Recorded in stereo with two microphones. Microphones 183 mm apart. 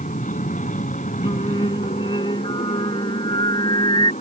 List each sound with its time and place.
0.0 s an aircraft: 45° left (ahead or behind); by 4.2 s 40° left (ahead or behind)
1.2 s singing: 25° left (ahead or behind)